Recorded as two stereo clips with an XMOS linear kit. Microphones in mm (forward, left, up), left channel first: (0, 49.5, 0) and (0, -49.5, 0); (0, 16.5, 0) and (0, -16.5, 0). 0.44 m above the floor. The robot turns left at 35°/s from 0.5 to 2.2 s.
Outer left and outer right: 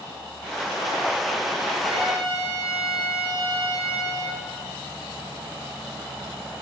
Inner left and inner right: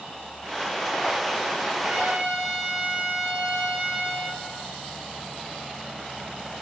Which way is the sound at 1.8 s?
75° right (ahead or behind).